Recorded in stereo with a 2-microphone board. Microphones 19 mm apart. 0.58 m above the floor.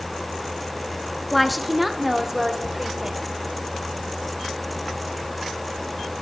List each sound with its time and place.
1.3 s a woman speaking: 5° left (ahead or behind), 0.7 m; by 3.4 s 25° right (ahead or behind), 2 m